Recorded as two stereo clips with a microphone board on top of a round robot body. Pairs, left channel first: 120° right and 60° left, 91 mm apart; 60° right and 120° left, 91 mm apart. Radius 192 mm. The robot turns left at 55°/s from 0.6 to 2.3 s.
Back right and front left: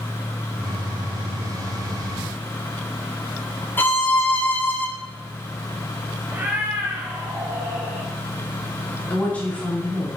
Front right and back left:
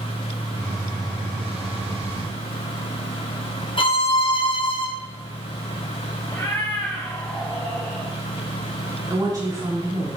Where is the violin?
55° right, 1.3 m.